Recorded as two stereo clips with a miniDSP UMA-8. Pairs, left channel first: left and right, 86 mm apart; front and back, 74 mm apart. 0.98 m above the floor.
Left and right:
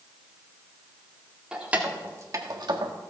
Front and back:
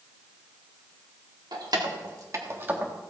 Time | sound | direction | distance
1.5 | keys jangling | 170° right | 2.0 m